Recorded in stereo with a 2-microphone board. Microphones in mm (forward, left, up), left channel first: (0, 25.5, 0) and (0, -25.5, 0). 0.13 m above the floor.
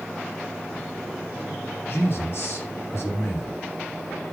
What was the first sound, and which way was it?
A man speaking, 50° left (ahead or behind).